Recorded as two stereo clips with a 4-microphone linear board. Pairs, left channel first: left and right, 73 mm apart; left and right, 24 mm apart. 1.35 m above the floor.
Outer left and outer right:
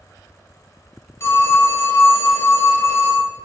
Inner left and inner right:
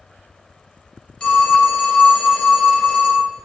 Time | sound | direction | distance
1.2 | a phone ringing | 35° left (ahead or behind) | 0.8 m